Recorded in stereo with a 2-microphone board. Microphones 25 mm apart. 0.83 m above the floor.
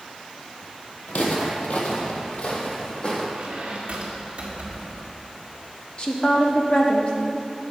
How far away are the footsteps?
About 1.6 m.